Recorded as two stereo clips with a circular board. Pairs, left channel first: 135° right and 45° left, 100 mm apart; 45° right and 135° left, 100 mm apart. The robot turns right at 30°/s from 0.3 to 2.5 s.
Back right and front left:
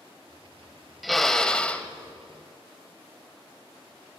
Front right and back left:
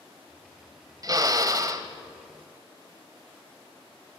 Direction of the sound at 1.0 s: 135° left.